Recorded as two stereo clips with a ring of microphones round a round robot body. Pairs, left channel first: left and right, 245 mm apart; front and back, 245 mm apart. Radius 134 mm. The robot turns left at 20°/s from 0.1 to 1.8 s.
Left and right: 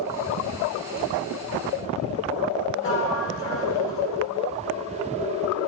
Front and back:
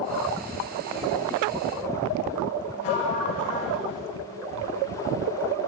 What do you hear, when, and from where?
2.8 s a sliding door: 50° left, 4.5 m